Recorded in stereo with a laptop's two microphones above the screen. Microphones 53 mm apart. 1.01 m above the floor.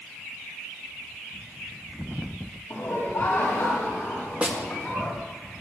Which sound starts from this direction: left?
Laughter, at 2.7 s.